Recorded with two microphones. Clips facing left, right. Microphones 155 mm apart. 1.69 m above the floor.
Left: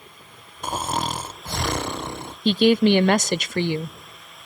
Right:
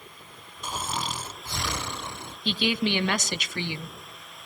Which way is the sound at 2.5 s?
50° left (ahead or behind).